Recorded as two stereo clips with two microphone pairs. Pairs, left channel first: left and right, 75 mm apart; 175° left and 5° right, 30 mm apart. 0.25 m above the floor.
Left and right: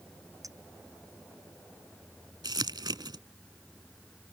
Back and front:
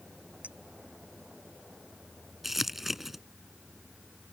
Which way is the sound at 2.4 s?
90° right.